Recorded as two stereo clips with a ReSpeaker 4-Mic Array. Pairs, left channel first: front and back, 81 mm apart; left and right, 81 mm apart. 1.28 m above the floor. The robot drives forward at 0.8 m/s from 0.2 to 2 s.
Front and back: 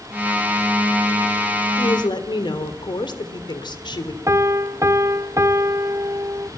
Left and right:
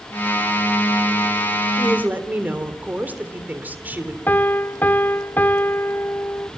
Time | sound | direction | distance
1.8 | a woman speaking | 20° right | 3.5 m
4.3 | a piano | 150° left | 0.6 m